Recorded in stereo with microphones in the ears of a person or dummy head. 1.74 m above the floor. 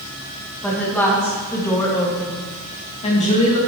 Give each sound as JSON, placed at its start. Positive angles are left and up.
{"t": 0.6, "sound": "a woman speaking", "side_deg": 10, "distance_m": 2.5}